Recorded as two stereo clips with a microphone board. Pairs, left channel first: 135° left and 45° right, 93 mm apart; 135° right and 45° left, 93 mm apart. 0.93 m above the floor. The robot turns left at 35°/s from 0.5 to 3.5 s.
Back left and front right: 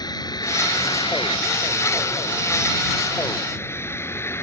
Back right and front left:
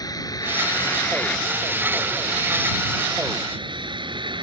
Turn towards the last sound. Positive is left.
turn(degrees=75)